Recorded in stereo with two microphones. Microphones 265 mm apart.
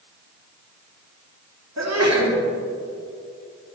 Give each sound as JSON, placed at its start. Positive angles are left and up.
{"t": 1.8, "sound": "a sneeze", "side_deg": -80, "distance_m": 2.5}